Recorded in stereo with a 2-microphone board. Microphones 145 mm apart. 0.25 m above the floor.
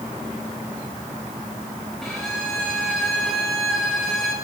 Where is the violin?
5° left (ahead or behind), 4.5 m.